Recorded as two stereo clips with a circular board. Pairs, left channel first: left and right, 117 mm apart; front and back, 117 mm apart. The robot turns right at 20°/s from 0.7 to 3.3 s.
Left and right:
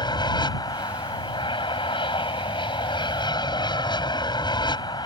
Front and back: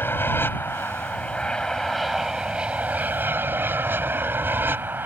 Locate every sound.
0.0 s an aircraft: 65° left; by 5.1 s 115° left